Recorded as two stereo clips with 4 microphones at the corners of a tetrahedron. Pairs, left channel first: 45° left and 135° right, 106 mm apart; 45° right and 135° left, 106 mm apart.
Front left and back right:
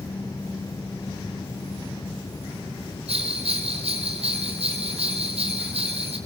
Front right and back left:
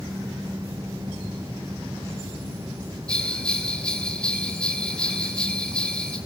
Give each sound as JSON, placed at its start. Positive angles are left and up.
{"t": 3.1, "sound": "a bell", "azimuth_deg": -125, "distance_m": 4.0}